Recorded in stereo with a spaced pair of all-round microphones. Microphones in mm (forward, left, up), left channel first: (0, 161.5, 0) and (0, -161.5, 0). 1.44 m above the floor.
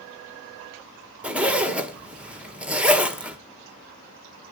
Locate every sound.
1.2 s a zipper: 5° right (ahead or behind), 1.2 m